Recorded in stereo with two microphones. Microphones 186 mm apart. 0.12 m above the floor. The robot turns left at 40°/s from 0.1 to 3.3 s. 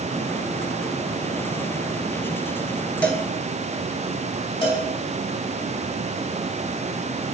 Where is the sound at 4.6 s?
30° left (ahead or behind), 2.5 m.